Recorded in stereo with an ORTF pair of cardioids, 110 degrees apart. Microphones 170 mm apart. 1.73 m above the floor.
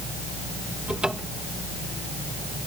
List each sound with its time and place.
0.9 s a cupboard door: 5° right